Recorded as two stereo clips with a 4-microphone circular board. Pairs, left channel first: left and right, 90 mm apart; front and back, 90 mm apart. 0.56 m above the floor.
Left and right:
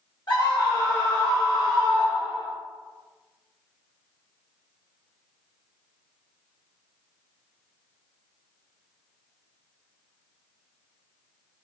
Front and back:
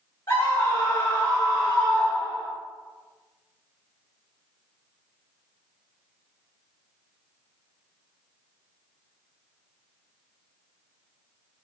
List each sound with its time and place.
0.3 s a scream: 50° left, 2.0 m; by 2.5 s 35° left, 1.0 m